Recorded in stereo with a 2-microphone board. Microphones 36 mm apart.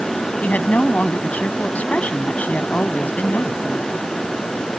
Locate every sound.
0.4 s a woman speaking: 45° left (ahead or behind)